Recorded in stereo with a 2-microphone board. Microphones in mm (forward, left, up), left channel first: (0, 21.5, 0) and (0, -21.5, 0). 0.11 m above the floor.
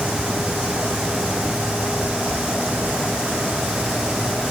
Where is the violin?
No violin in this recording.